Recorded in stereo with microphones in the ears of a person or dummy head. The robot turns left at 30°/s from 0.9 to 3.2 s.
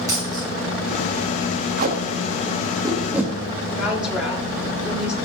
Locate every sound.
0.1 s a dropped coin: 15° right (ahead or behind), 2.5 m
1.8 s tape being pulled: 45° right (ahead or behind), 1.3 m; by 3.3 s 5° right (ahead or behind), 1.3 m
3.8 s a woman speaking: 5° right (ahead or behind), 3.5 m